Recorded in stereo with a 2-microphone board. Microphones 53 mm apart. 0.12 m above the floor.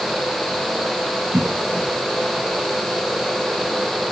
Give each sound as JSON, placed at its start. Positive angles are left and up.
{"t": 1.3, "sound": "a cough", "side_deg": -55, "distance_m": 5.0}